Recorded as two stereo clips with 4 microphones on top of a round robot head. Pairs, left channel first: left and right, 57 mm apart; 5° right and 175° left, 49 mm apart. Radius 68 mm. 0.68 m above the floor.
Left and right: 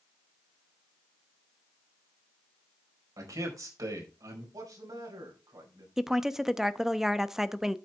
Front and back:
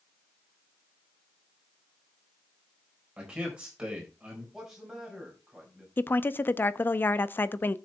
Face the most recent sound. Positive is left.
turn(degrees=-10)